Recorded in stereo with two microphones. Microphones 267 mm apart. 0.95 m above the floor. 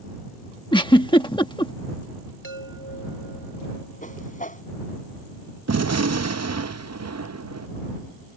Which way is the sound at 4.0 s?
30° left (ahead or behind).